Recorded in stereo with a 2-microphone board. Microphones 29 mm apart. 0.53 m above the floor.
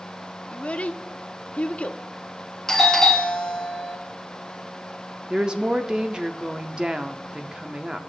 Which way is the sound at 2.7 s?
15° left (ahead or behind).